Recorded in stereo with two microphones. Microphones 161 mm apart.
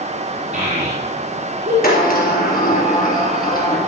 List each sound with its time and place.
0.5 s a child speaking: 45° right (ahead or behind), 4 m; by 1.7 s 55° right (ahead or behind), 4.5 m
1.8 s a sliding door: 55° left (ahead or behind), 3 m